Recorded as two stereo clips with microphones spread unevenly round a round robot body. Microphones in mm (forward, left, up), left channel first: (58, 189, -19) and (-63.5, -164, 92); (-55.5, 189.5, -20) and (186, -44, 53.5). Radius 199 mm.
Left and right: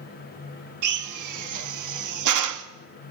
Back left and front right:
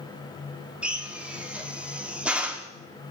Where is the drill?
145° right, 1.2 m.